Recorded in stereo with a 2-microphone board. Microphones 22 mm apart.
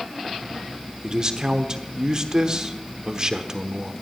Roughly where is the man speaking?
Right.